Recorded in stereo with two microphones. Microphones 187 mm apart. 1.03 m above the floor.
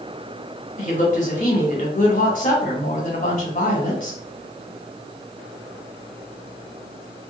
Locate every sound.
0.8 s a woman speaking: 45° left (ahead or behind), 1.1 m